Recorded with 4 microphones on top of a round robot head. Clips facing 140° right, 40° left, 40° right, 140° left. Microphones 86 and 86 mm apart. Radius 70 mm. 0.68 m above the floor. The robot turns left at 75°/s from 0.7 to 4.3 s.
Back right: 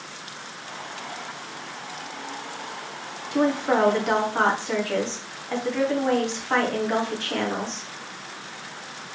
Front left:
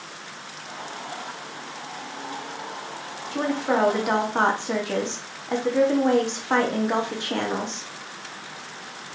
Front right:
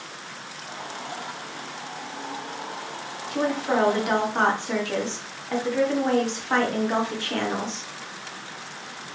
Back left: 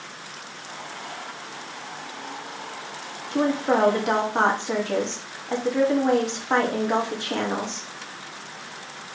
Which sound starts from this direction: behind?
A woman speaking, at 3.3 s.